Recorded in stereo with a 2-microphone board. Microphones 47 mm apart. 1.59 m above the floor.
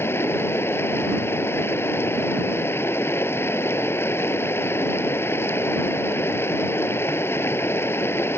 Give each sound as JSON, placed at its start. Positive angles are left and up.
{"t": 0.0, "sound": "running water", "side_deg": 60}